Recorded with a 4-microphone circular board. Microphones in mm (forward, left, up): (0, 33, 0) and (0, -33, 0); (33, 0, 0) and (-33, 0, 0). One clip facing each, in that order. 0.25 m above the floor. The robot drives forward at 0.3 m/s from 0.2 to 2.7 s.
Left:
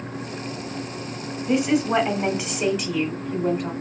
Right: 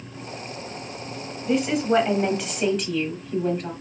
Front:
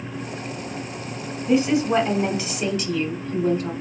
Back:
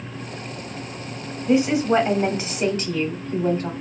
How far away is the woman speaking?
About 0.9 m.